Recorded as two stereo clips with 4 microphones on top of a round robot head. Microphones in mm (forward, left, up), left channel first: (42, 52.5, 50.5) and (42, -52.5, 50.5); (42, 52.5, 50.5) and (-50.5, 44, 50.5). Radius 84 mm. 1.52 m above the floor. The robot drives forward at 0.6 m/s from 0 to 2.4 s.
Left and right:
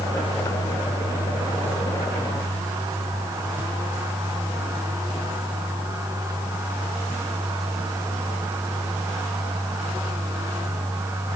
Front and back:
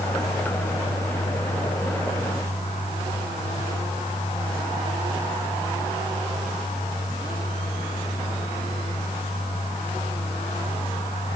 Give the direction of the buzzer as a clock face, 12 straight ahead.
No buzzer in this recording.